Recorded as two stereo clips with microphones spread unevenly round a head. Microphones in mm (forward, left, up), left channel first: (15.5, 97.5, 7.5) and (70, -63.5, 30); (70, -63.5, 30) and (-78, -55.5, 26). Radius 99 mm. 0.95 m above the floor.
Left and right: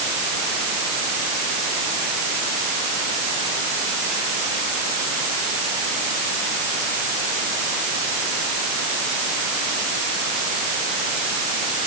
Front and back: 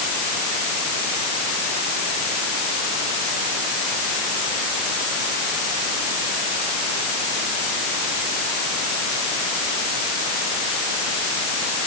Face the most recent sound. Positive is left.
No sound to turn to.